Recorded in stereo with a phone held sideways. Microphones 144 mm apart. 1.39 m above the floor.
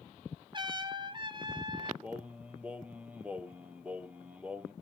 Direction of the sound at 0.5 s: 35° right (ahead or behind).